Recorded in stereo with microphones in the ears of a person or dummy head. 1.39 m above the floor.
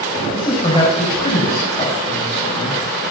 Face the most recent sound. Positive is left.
turn(degrees=35)  # may be behind; listen again after turning